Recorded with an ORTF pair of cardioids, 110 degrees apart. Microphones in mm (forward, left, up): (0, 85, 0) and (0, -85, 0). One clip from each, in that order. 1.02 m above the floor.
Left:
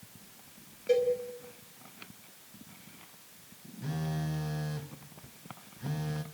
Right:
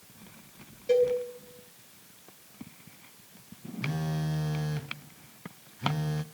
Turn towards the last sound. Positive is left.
turn(degrees=-20)